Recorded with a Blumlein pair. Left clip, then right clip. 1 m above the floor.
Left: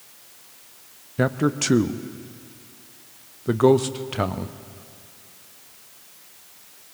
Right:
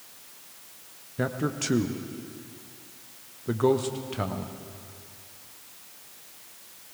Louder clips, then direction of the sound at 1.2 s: Left 7 dB; 20° left.